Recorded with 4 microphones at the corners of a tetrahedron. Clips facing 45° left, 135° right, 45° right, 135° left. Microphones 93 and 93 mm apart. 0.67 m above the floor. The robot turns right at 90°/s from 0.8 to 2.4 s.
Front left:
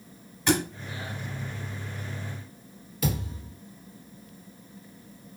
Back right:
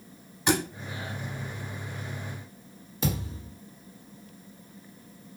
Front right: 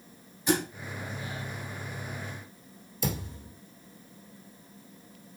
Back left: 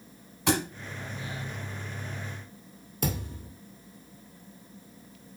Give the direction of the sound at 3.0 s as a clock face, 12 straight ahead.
7 o'clock.